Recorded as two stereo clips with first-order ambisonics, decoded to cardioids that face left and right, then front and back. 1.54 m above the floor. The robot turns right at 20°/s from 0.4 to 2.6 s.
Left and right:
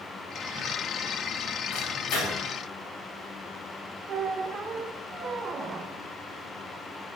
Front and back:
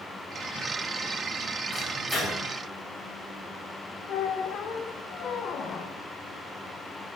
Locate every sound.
1.7 s a microwave: 80° left, 2 m; by 2.4 s 95° left, 2 m
4.1 s a squeak: 35° right, 0.5 m